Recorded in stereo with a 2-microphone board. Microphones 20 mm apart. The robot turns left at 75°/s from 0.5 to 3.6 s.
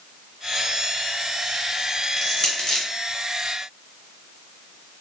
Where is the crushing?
20° left (ahead or behind), 1.4 m; by 2.9 s 35° left (ahead or behind), 1.4 m.